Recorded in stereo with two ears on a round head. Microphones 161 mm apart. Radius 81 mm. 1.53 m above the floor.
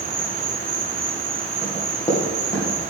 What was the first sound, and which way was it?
An insect, 30° right (ahead or behind).